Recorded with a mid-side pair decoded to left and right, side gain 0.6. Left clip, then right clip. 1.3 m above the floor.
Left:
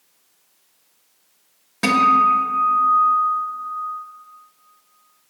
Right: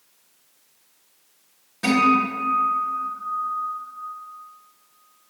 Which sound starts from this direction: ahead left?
A guitar, at 1.8 s.